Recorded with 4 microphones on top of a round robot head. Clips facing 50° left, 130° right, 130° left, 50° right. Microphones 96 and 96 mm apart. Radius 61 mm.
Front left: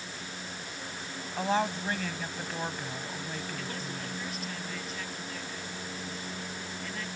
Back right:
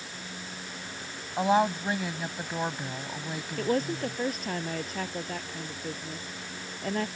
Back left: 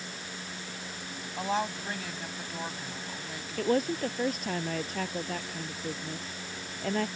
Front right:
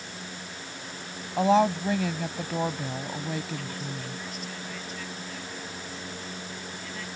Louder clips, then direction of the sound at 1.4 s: Back right 5 dB, front right 10 dB; 55° right.